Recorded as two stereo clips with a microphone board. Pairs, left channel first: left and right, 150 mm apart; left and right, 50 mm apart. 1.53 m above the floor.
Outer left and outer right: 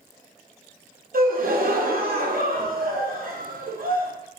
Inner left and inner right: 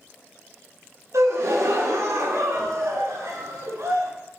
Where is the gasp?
70° right (ahead or behind), 0.5 m.